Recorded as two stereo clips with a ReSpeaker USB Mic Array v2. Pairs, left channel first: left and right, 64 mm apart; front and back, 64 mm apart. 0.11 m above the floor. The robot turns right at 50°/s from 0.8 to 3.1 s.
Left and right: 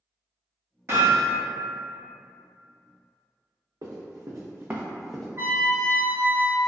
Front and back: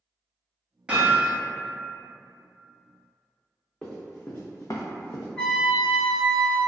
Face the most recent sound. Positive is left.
turn(degrees=-70)